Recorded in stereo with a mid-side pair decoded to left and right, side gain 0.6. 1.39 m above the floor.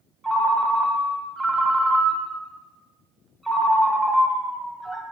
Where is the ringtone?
20° right, 0.9 m.